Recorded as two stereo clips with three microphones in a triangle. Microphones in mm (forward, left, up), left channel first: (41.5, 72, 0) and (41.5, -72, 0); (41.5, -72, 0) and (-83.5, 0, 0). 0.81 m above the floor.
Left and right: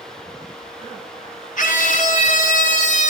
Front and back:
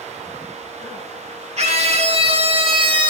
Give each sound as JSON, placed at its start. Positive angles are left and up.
{"t": 1.6, "sound": "a scream", "azimuth_deg": 110, "distance_m": 2.5}